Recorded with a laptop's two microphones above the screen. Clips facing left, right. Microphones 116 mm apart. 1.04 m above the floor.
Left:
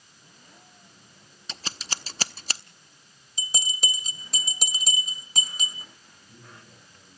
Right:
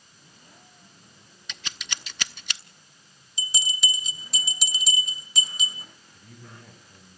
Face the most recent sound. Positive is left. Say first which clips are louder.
# right 4 dB
turn(degrees=-80)